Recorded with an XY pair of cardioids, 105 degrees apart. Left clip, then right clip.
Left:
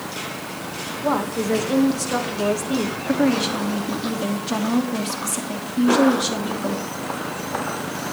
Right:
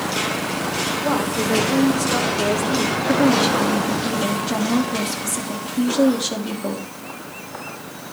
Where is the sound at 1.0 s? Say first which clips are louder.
Left 2 dB; 10° left, 2 m.